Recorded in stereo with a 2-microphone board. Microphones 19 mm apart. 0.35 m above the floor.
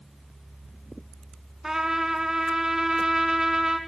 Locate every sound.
1.6 s a trumpet: 30° right (ahead or behind), 0.5 m